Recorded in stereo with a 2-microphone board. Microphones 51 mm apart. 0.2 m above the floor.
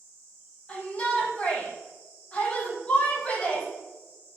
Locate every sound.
0.7 s a shout: 20° left (ahead or behind), 6 m